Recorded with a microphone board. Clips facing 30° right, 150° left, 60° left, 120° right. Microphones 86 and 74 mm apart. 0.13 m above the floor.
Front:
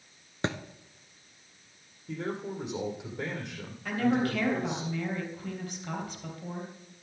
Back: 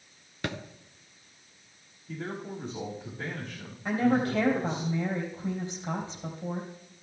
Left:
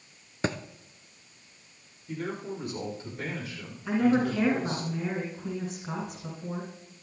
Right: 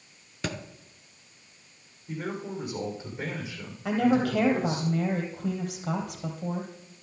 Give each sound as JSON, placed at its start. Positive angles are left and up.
{"t": 0.4, "sound": "a thud", "azimuth_deg": 20, "distance_m": 0.8}
{"t": 2.1, "sound": "a man speaking", "azimuth_deg": -45, "distance_m": 5.5}
{"t": 3.9, "sound": "a woman speaking", "azimuth_deg": -140, "distance_m": 3.0}